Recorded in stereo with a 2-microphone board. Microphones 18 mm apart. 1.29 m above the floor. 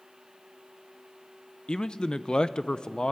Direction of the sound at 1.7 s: 55° left (ahead or behind).